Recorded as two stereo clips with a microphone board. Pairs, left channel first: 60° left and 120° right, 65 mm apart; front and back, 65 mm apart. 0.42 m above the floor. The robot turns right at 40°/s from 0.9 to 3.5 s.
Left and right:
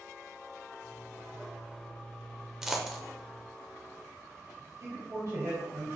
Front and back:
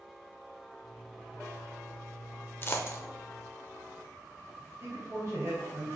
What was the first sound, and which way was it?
A dropped coin, 45° right.